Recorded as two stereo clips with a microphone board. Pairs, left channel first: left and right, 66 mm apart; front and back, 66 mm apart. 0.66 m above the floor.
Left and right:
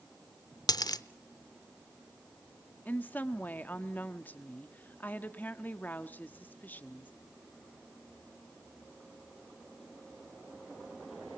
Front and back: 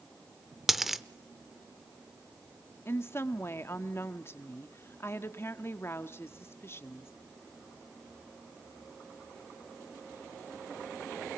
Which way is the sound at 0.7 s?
95° left.